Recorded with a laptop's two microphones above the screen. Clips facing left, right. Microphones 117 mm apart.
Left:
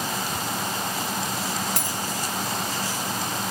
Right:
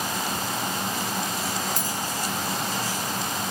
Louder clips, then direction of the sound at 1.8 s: Even; 80° left.